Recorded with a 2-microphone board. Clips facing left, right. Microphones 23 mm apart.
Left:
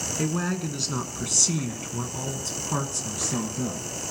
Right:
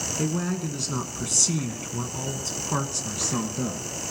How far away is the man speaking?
About 1.6 m.